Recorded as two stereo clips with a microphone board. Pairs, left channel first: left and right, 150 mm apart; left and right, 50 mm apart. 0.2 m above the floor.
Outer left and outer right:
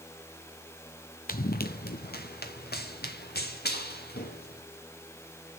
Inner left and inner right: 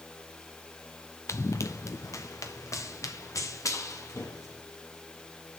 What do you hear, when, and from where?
1.3 s running footsteps: 65° left (ahead or behind), 0.8 m; by 4.6 s 80° left, 3 m